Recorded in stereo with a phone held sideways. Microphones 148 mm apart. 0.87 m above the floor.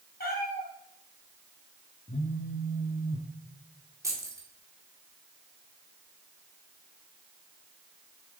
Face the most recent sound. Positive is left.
turn(degrees=-20)  # may be behind; listen again after turning